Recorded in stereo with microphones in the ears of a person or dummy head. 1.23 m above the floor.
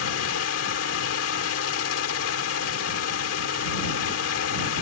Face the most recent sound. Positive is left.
turn(degrees=80)